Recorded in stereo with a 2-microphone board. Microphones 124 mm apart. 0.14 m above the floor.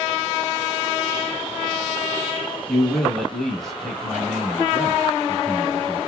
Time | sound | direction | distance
2.7 | a man speaking | 5° left (ahead or behind) | 1.1 m